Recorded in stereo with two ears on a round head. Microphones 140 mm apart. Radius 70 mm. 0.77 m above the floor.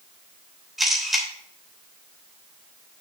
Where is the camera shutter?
Centre (ahead or behind), 3 m.